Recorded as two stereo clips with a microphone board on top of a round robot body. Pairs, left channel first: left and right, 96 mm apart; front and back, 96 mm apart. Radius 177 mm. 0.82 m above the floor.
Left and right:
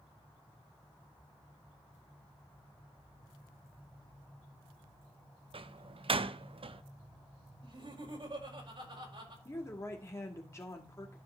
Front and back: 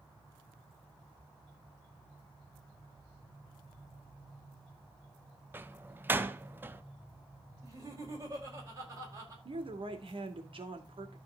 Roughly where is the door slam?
Right.